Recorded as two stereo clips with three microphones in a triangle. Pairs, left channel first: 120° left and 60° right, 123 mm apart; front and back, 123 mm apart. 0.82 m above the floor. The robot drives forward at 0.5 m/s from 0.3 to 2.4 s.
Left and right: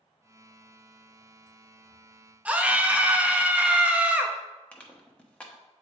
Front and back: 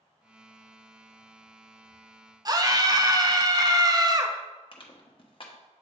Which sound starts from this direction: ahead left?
Crushing, at 4.7 s.